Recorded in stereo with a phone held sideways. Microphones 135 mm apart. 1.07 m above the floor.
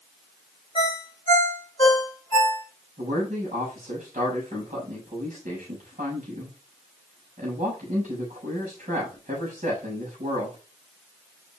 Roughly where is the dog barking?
I don't hear a dog barking.